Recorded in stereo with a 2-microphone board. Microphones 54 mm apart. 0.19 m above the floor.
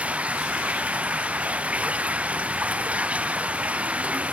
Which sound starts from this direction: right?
Running water, at 0.0 s.